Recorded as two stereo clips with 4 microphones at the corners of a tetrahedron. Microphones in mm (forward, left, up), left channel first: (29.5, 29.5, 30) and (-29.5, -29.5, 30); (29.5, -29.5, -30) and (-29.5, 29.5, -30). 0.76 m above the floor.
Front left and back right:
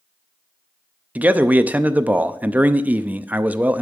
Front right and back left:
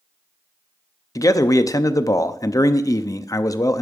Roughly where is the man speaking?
Right.